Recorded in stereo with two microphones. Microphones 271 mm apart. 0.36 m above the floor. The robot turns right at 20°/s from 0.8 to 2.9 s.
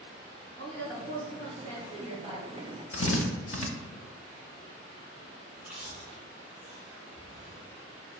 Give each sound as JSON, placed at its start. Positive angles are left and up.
{"t": 0.6, "sound": "a woman speaking", "azimuth_deg": 85, "distance_m": 1.6}
{"t": 2.9, "sound": "a drill", "side_deg": 55, "distance_m": 0.6}
{"t": 5.6, "sound": "chewing", "side_deg": -5, "distance_m": 0.9}